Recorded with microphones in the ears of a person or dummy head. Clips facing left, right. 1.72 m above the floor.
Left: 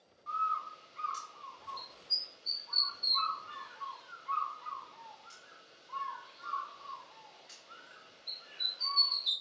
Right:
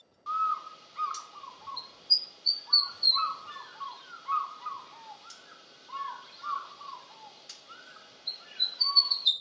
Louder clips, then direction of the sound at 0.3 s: Right 4 dB; 70° right (ahead or behind).